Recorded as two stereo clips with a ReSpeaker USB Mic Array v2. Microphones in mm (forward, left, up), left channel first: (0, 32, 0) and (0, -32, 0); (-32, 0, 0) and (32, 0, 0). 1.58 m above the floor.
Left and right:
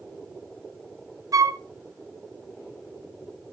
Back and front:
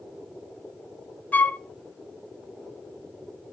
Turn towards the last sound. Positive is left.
turn(degrees=-115)